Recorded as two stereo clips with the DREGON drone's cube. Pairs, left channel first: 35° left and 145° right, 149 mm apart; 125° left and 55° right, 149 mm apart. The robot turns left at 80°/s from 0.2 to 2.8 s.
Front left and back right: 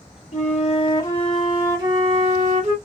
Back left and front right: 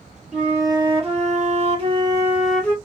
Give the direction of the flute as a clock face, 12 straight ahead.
11 o'clock.